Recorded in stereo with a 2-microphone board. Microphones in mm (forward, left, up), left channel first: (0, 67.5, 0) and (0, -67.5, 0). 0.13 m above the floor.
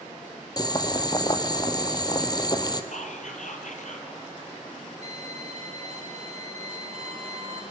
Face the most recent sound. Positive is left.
turn(degrees=-55)  # may be behind; listen again after turning